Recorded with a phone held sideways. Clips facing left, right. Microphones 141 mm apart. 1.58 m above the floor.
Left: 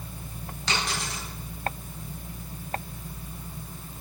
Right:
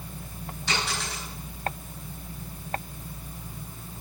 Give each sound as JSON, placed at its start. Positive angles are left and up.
{"t": 0.7, "sound": "a dropped coin", "side_deg": 80, "distance_m": 8.0}